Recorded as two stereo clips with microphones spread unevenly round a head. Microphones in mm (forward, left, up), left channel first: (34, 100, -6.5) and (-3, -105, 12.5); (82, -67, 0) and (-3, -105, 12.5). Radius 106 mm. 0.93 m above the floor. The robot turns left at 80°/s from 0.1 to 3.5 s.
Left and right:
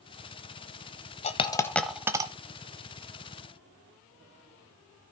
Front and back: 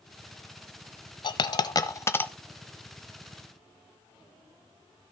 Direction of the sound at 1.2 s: 35° left.